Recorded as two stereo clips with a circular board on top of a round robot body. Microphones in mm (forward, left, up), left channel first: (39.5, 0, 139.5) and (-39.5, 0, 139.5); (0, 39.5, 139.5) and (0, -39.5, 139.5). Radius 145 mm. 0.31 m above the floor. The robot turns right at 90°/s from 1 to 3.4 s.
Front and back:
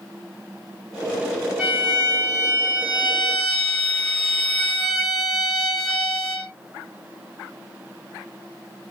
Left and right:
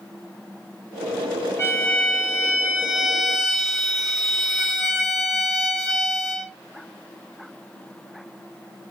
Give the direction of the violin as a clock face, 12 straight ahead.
8 o'clock.